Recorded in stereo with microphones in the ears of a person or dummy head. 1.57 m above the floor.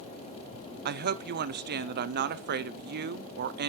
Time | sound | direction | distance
0.8 | a woman speaking | 50° right (ahead or behind) | 0.6 m